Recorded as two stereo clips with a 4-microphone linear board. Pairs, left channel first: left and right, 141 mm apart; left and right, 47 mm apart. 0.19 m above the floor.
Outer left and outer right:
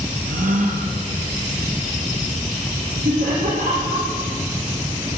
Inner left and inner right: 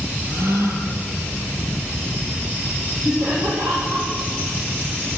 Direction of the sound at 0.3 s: 75° right (ahead or behind).